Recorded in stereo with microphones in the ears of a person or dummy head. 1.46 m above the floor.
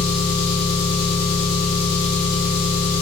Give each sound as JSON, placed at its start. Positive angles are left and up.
{"t": 0.0, "sound": "an engine running", "side_deg": 40, "distance_m": 1.1}